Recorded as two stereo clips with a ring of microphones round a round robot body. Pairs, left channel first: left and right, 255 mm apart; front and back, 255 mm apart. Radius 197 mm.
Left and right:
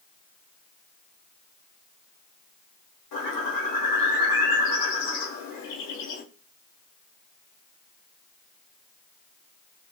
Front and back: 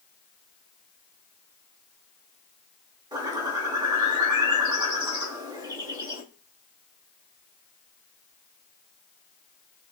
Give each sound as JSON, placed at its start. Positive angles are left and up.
{"t": 3.1, "sound": "a bird", "azimuth_deg": 110, "distance_m": 1.1}